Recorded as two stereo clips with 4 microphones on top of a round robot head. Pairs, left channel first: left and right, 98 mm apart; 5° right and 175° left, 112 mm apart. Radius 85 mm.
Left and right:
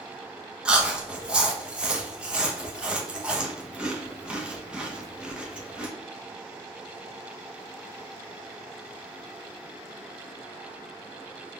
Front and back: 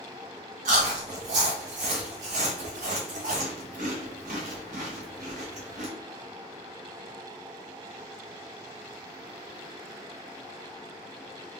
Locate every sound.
0.7 s chewing: 170° right, 0.6 m